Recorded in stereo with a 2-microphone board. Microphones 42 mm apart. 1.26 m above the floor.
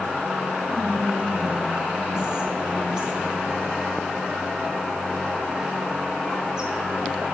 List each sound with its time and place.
0.7 s whispering: 15° right (ahead or behind), 1.3 m